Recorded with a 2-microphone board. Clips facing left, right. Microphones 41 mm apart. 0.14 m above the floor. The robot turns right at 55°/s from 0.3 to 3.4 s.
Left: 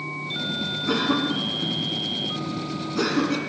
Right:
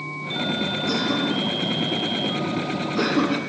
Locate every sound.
0.9 s a cough: 30° left (ahead or behind), 1.1 m; by 3.4 s 20° right (ahead or behind), 1.1 m